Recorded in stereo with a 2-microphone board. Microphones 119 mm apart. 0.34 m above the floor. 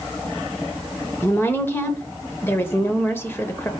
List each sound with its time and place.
1.2 s a woman speaking: 20° left (ahead or behind), 0.8 m